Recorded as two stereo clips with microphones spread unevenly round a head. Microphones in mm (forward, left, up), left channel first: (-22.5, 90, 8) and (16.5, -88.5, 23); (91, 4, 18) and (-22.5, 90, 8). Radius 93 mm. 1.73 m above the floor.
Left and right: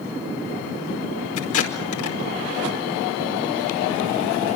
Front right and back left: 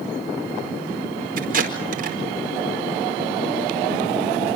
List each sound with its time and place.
1.4 s tape being pulled: 115° left, 5 m